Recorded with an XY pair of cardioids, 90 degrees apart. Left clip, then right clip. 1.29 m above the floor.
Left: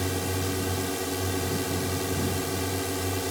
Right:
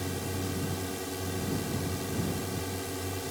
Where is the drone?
50° left.